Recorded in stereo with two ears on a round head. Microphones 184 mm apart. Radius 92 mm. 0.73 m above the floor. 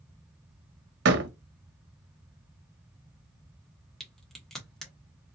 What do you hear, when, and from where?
1.1 s a door slam: 55° right (ahead or behind), 0.9 m
4.0 s a crack: centre (ahead or behind), 1.3 m